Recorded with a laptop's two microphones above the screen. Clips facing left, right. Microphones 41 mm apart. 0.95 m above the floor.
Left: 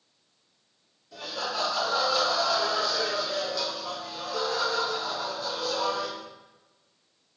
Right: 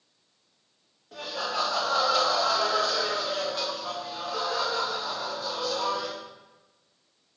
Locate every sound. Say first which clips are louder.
1.1 s laughter: right 2 dB; 50° right (ahead or behind), 1.4 m; by 6.1 s 10° right (ahead or behind), 2 m